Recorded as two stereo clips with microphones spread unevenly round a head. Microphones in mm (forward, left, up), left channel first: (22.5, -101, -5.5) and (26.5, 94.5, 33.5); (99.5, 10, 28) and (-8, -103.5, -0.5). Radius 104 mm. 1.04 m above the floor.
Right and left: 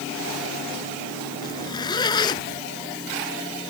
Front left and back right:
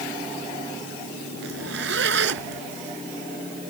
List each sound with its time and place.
1.4 s a zipper: 165° right